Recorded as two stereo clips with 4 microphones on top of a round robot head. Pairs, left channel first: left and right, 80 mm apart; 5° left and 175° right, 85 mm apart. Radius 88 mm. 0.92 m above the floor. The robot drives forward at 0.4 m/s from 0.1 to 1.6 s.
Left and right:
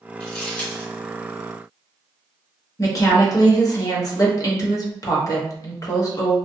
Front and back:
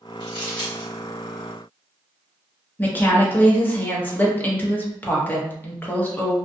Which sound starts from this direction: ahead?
Crumpling, at 0.2 s.